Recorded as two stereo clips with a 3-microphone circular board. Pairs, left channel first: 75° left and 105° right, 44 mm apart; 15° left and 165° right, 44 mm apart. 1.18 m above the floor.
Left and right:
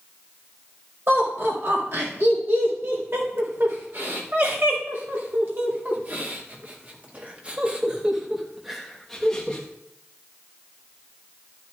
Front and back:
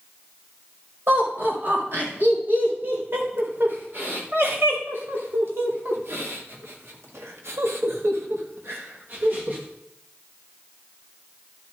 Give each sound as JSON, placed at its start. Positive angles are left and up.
{"t": 1.1, "sound": "laughter", "azimuth_deg": -130, "distance_m": 5.5}